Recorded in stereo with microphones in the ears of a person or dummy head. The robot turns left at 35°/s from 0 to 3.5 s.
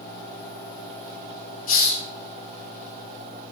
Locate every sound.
1.7 s a hiss: 40° left (ahead or behind), 2 m; by 2.0 s 55° left (ahead or behind), 2 m